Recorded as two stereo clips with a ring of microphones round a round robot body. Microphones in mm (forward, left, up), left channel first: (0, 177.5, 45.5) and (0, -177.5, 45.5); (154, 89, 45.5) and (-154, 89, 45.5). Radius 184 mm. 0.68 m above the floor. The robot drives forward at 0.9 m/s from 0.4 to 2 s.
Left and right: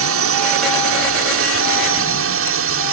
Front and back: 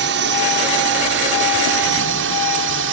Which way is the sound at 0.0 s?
130° right.